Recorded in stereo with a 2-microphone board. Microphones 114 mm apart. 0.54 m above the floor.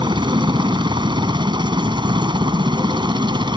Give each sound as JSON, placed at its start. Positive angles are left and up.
{"t": 0.0, "sound": "a helicopter", "side_deg": -45}